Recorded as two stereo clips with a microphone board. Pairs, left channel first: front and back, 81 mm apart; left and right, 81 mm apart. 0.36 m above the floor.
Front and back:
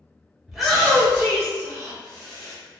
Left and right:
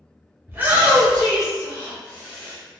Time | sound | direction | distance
0.5 | a shout | 105° right | 1.0 m